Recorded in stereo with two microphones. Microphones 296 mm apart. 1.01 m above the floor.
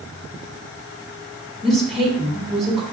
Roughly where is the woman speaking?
Centre.